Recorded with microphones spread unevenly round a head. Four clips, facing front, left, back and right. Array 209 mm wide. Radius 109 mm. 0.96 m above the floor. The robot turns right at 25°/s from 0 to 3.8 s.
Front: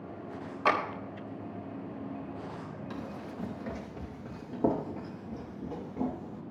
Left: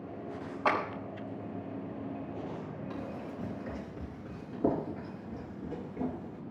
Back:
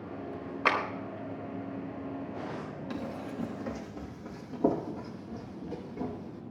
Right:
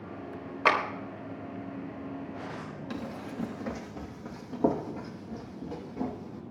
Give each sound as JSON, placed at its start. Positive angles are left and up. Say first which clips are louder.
{"t": 0.7, "sound": "a clap", "louder": "right 4 dB, front 1 dB", "azimuth_deg": -110, "distance_m": 4.0}
{"t": 2.9, "sound": "running footsteps", "louder": "right 4 dB, back 4 dB", "azimuth_deg": -105, "distance_m": 3.0}